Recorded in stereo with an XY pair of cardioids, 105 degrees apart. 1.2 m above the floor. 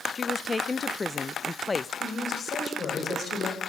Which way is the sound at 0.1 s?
25° left.